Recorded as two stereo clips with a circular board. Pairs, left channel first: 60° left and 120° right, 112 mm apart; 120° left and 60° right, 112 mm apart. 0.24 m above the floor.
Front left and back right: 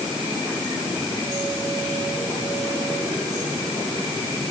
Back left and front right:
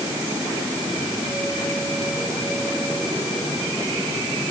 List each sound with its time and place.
Only background noise.